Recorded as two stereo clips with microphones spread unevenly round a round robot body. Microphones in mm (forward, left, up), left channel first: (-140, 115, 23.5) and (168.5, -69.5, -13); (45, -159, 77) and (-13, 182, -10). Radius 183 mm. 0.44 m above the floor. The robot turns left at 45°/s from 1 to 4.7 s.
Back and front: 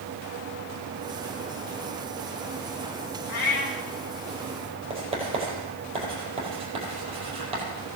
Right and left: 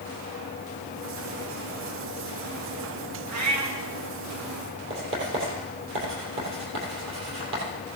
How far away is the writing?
About 4 m.